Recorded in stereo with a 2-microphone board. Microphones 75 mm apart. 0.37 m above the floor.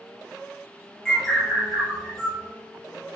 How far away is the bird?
About 1.9 m.